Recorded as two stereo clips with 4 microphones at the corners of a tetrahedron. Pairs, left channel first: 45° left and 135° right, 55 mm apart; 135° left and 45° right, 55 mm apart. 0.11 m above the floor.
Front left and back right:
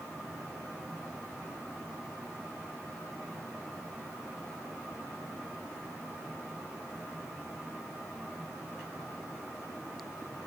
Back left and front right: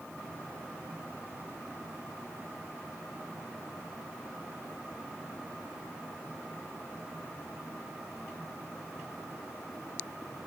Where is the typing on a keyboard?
No typing on a keyboard in this recording.